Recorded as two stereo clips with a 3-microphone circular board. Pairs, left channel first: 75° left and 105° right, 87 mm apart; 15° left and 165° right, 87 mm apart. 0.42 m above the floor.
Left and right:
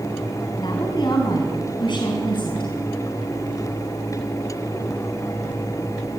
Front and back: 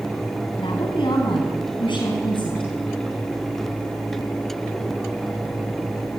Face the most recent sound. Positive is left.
turn(degrees=45)